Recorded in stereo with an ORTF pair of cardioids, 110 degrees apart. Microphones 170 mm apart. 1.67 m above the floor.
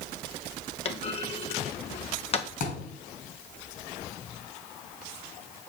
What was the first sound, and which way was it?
A clunk, 35° left.